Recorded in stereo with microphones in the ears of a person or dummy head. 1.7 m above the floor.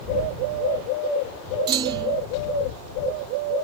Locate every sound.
1.7 s a clunk: 25° right (ahead or behind)